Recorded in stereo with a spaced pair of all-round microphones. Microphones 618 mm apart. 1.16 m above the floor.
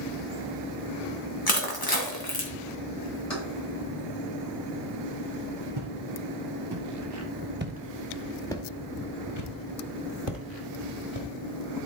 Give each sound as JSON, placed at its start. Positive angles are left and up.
{"t": 1.5, "sound": "crushing", "side_deg": 35, "distance_m": 1.8}
{"t": 3.3, "sound": "keys jangling", "side_deg": 55, "distance_m": 4.0}
{"t": 5.8, "sound": "footsteps", "side_deg": -40, "distance_m": 2.5}